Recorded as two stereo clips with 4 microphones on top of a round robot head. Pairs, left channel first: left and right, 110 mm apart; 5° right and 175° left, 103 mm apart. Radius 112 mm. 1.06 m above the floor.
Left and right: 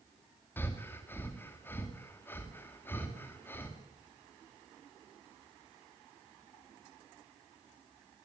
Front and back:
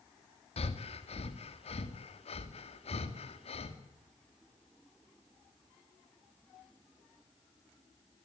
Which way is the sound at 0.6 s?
15° left.